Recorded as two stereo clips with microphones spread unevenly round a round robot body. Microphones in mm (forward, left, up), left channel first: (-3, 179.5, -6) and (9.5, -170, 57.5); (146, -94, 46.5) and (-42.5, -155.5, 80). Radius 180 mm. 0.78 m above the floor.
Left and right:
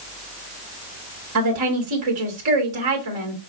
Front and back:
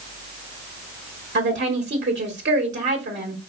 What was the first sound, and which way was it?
A woman speaking, 130° right.